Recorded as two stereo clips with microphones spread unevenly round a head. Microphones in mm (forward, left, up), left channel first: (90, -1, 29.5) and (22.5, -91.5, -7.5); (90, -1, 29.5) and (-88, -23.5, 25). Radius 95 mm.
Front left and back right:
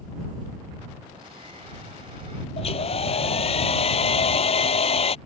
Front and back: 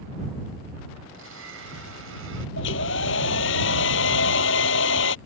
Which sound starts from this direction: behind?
A blender, at 1.1 s.